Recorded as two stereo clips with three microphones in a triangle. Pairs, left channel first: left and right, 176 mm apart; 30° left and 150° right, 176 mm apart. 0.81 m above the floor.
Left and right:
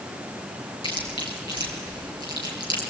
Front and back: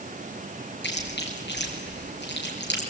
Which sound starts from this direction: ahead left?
Chewing, at 0.8 s.